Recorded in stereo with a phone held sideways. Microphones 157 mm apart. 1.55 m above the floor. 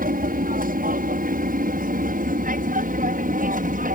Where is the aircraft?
65° right (ahead or behind); by 3.9 s 60° right (ahead or behind).